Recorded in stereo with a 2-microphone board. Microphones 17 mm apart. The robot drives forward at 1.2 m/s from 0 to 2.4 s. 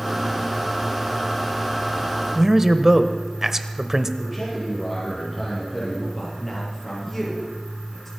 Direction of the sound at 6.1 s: 5° left (ahead or behind).